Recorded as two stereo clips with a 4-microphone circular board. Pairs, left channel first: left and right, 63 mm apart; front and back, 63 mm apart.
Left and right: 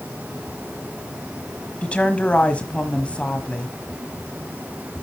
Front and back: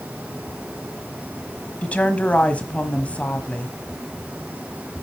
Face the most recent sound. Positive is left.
turn(degrees=45)